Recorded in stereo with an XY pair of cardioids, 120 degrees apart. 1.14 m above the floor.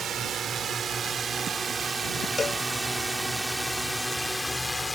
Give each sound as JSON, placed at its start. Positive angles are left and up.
{"t": 0.0, "sound": "a drone", "azimuth_deg": -50}
{"t": 2.4, "sound": "a cowbell", "azimuth_deg": 30}